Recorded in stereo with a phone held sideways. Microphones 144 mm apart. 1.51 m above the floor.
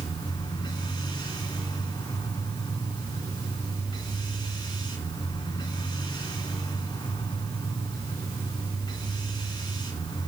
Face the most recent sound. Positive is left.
turn(degrees=30)  # may be behind; listen again after turning